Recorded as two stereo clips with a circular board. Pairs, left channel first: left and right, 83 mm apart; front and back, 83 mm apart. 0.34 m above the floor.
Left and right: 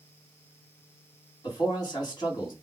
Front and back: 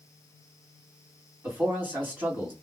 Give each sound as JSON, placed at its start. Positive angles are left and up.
{"t": 1.4, "sound": "a man speaking", "azimuth_deg": 115, "distance_m": 2.5}